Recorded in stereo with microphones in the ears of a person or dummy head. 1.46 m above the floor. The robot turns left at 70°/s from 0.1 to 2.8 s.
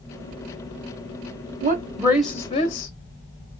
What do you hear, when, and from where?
1.6 s a woman speaking: 135° right, 0.8 m; by 2.9 s 140° left, 0.8 m